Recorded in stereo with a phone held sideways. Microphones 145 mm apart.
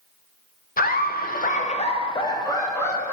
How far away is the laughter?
About 0.5 m.